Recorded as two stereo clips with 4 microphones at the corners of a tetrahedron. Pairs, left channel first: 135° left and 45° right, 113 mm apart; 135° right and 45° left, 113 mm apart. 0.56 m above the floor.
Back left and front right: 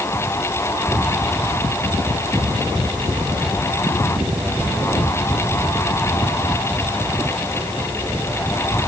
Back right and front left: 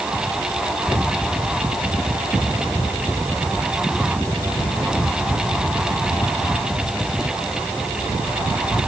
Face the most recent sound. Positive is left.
No sound to turn to.